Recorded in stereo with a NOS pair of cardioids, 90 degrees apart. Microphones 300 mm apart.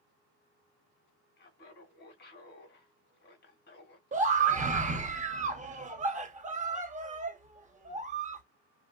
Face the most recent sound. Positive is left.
turn(degrees=-25)